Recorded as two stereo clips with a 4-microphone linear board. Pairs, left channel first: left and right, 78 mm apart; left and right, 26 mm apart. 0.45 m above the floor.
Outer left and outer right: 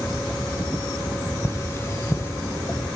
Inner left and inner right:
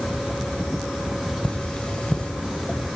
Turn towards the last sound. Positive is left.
turn(degrees=40)  # may be behind; listen again after turning